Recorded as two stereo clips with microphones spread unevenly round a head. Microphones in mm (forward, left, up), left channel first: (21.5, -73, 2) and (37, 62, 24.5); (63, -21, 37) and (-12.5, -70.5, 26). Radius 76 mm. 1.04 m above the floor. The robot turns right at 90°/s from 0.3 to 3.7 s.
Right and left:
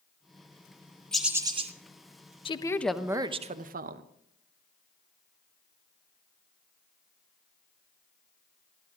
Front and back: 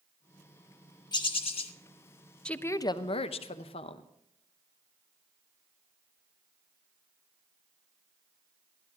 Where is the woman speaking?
50° right, 0.7 m; by 4.0 s 60° left, 0.7 m.